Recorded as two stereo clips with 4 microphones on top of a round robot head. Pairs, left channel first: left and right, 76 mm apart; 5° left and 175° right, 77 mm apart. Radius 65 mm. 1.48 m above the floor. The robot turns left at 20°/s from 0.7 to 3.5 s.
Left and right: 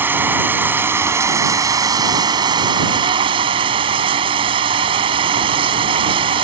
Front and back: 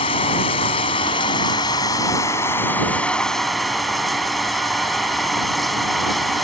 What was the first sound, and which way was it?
Running water, 25° right.